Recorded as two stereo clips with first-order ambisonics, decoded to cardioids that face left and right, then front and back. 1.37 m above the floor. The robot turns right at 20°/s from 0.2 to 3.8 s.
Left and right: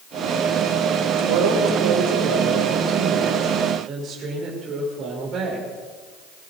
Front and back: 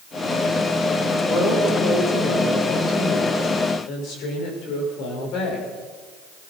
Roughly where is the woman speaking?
Right.